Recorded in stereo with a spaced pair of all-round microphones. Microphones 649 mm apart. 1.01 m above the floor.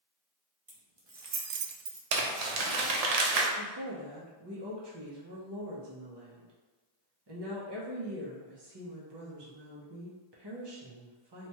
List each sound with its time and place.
0.7 s keys jangling: 30° right (ahead or behind), 0.9 m; by 2.0 s 50° right (ahead or behind), 0.6 m
2.1 s crumpling: 70° right (ahead or behind), 0.6 m
3.6 s a woman speaking: 40° right (ahead or behind), 0.7 m